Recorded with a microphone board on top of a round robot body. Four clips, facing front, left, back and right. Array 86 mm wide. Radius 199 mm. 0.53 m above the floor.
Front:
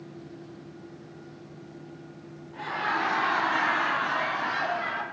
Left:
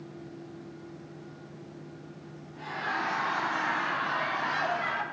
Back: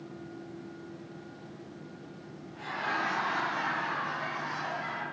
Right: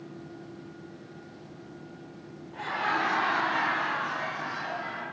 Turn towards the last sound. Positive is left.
turn(degrees=55)